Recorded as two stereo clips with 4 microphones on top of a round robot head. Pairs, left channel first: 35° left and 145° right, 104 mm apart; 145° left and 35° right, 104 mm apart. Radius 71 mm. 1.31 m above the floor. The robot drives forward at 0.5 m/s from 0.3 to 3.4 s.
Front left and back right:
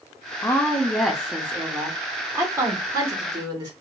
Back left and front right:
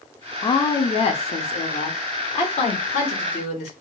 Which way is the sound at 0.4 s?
100° left.